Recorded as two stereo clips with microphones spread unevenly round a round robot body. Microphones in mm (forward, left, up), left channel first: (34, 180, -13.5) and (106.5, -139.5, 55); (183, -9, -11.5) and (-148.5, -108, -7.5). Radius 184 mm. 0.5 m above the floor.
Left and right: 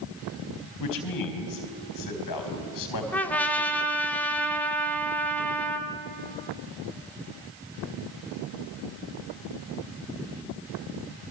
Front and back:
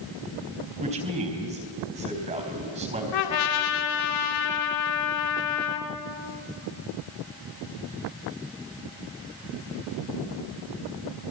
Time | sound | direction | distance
0.8 | a man speaking | 125° left | 4 m
3.1 | a trumpet | 25° left | 2.5 m